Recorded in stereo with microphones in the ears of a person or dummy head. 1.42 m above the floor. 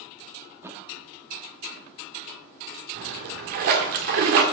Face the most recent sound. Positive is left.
turn(degrees=-50)  # may be behind; listen again after turning